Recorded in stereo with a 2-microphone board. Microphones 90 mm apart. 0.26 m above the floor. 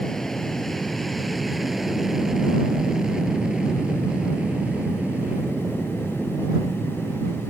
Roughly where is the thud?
I don't hear a thud.